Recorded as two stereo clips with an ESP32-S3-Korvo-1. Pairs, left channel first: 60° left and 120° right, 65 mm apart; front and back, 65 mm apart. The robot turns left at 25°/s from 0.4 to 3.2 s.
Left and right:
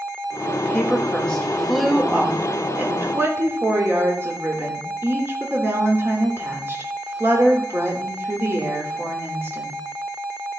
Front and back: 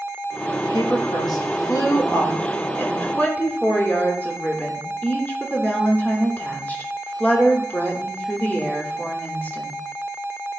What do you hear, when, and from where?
0.6 s a woman speaking: straight ahead, 2.5 m; by 9.8 s 65° right, 2.5 m